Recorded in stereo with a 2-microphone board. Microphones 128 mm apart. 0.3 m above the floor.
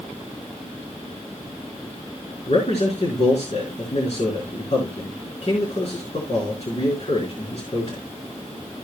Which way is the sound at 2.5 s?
55° left (ahead or behind).